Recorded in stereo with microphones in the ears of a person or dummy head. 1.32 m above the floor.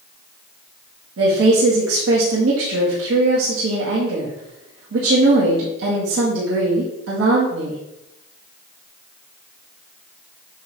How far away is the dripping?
I don't hear dripping.